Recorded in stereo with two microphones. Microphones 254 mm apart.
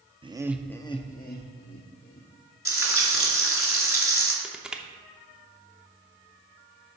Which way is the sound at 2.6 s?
55° left (ahead or behind).